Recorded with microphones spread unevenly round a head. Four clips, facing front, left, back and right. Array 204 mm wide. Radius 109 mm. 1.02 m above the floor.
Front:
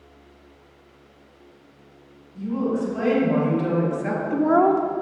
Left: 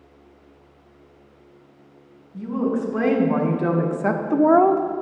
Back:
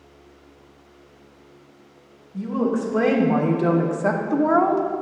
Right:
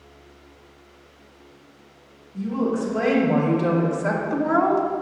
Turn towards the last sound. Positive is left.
turn(degrees=15)